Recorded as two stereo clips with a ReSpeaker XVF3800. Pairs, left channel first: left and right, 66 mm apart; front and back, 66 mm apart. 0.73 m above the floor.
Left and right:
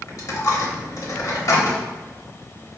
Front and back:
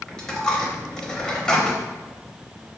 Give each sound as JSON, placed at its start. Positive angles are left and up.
{"t": 0.1, "sound": "a dropped coin", "azimuth_deg": 75, "distance_m": 0.7}